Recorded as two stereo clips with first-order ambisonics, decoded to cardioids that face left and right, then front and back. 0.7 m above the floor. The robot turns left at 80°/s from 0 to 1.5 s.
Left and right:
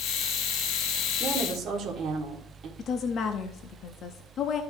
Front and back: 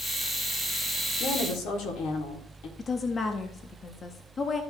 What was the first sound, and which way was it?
A woman speaking, 10° right.